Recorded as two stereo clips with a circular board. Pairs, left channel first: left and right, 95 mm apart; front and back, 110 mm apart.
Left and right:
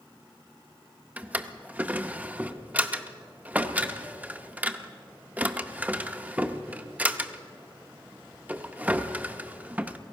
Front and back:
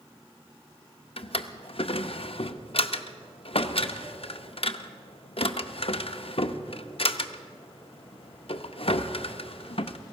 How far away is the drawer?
About 0.6 m.